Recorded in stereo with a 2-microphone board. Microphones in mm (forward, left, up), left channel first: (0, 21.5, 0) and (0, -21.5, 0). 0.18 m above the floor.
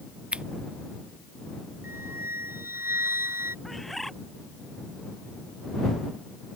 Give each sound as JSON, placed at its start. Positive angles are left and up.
{"t": 0.3, "sound": "scissors", "side_deg": -25}
{"t": 1.8, "sound": "a flute", "side_deg": -65}
{"t": 3.6, "sound": "a bird", "side_deg": 0}